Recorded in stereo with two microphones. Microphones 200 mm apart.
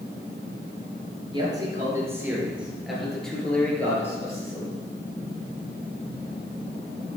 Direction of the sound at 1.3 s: 20° right (ahead or behind).